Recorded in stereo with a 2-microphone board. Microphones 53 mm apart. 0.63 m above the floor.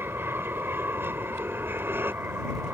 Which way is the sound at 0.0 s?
45° right (ahead or behind).